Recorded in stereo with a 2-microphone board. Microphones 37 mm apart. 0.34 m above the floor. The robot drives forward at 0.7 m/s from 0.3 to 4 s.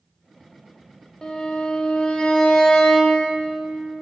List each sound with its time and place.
1.2 s a violin: 20° left (ahead or behind), 0.7 m; by 3.3 s 15° left (ahead or behind), 1.1 m